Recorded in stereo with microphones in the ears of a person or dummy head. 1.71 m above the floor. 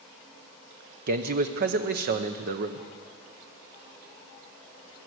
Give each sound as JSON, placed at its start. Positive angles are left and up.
{"t": 1.1, "sound": "a man speaking", "side_deg": -50, "distance_m": 0.9}